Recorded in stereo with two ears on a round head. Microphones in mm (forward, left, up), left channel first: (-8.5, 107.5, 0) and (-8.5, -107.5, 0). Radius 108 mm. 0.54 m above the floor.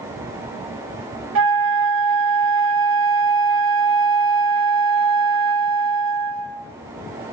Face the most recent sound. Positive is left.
turn(degrees=-55)  # may be behind; listen again after turning